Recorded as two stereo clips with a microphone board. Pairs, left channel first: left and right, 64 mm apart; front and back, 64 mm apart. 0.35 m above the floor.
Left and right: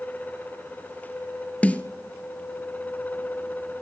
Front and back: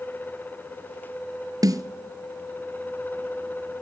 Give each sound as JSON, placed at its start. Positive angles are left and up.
{"t": 1.6, "sound": "a snare drum", "azimuth_deg": 160, "distance_m": 1.3}